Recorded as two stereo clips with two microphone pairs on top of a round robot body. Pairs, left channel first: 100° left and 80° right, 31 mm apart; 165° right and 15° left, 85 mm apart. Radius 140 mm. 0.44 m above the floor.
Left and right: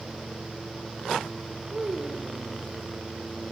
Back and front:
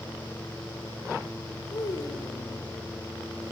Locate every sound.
1.7 s a child speaking: 130° right, 2 m